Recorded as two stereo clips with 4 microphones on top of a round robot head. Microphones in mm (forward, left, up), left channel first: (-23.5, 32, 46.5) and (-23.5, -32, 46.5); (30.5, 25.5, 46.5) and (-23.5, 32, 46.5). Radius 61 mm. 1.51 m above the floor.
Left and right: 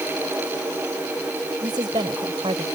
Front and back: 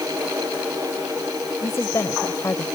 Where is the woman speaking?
60° right.